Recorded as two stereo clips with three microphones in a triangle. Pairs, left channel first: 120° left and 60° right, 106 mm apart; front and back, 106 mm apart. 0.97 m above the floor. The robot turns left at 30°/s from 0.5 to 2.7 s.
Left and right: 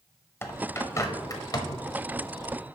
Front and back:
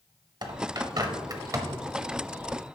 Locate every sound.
0.4 s a bird: 175° left, 0.9 m; by 2.5 s 115° left, 0.9 m